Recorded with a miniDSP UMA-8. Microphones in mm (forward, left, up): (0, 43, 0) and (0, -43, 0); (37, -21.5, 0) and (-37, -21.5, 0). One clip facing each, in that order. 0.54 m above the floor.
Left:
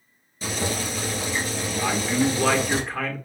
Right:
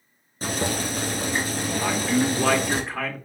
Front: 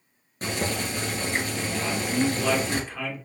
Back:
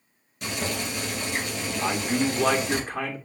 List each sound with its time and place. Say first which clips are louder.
0.4 s boiling: right 1 dB, front 2 dB; 50° right, 1.5 m
1.8 s a man speaking: even, back 1 dB; 175° right, 1.2 m